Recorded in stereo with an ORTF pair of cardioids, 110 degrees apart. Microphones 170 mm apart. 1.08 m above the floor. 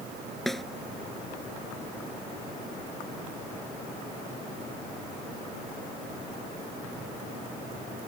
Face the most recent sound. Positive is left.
turn(degrees=0)